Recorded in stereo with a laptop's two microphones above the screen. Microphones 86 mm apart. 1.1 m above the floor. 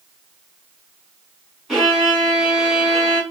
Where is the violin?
10° right (ahead or behind), 1.7 m.